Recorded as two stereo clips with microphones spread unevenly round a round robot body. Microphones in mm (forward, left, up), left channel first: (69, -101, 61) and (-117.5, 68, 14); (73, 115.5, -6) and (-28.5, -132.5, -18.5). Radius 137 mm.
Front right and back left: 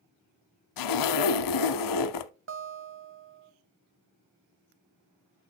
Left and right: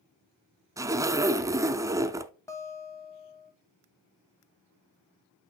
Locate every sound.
0.8 s a zipper: 35° right, 0.6 m
2.5 s a guitar: 145° left, 1.1 m